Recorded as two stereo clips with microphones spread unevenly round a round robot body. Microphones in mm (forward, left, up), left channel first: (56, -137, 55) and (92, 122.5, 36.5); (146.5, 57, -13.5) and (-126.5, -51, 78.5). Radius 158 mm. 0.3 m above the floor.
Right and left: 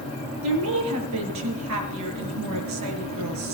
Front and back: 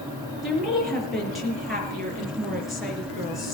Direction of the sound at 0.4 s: 110° left.